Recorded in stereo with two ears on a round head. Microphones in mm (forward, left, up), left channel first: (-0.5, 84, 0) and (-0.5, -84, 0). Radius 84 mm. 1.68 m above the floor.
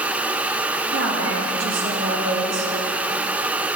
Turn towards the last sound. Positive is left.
turn(degrees=-70)  # may be behind; listen again after turning